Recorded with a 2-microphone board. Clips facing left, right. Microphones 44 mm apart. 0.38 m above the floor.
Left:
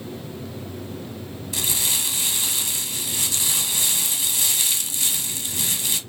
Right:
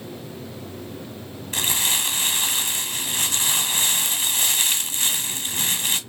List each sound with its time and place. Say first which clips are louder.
1.5 s crumpling: right 4 dB; 45° right (ahead or behind), 1.1 m